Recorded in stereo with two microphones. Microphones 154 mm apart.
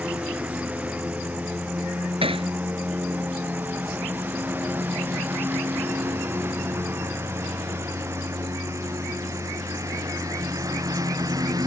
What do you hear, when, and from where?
0.0 s a lawn mower: 10° right (ahead or behind); by 11.7 s 25° right (ahead or behind)
2.2 s hammering: 35° right (ahead or behind)